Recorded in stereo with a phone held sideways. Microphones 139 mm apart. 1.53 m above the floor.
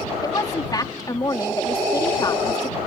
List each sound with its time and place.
0.2 s a woman speaking: 30° left (ahead or behind)